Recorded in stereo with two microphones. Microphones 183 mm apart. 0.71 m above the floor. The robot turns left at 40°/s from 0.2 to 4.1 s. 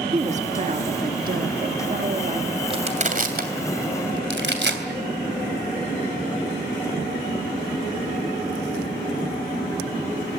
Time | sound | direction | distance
0.1 | a woman speaking | 50° right | 1.6 m
2.7 | crushing | 30° right (ahead or behind) | 3 m